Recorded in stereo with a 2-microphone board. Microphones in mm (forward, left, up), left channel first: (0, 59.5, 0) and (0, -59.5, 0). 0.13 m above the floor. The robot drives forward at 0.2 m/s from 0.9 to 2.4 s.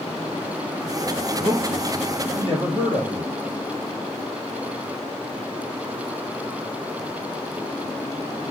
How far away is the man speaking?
About 3.5 m.